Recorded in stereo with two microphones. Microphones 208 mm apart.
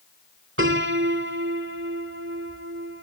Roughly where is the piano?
Right.